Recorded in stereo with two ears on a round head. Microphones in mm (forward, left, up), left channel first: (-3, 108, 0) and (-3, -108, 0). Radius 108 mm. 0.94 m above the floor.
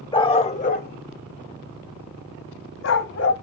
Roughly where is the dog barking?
Centre.